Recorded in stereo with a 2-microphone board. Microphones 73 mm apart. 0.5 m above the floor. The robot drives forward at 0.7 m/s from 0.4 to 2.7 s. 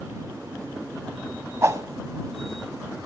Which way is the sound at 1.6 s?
40° right (ahead or behind).